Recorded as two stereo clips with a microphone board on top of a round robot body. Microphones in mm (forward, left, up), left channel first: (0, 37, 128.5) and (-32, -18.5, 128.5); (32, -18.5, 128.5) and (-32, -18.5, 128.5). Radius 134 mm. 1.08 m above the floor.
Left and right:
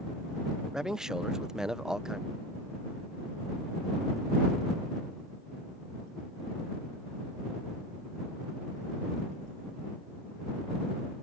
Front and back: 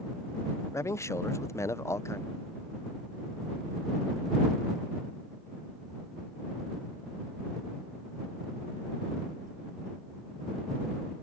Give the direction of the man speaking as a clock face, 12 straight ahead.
1 o'clock.